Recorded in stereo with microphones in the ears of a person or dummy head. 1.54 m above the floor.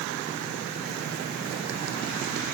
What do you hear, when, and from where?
Only background noise.